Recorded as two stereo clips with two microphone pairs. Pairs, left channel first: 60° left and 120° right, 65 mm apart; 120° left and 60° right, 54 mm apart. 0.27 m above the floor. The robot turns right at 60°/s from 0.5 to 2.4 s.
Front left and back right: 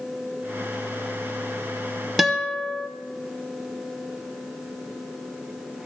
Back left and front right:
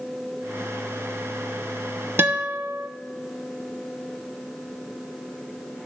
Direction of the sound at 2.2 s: 35° right.